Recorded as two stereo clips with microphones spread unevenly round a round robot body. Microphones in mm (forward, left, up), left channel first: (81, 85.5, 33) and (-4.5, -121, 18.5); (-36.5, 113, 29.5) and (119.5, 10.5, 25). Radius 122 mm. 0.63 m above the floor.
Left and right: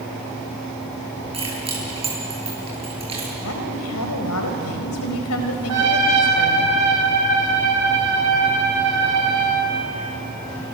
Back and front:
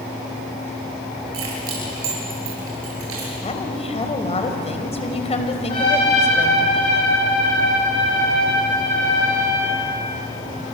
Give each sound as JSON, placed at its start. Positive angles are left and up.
{"t": 1.3, "sound": "keys jangling", "azimuth_deg": -45, "distance_m": 9.0}
{"t": 3.4, "sound": "a woman speaking", "azimuth_deg": 90, "distance_m": 4.0}
{"t": 5.7, "sound": "a trumpet", "azimuth_deg": -140, "distance_m": 8.5}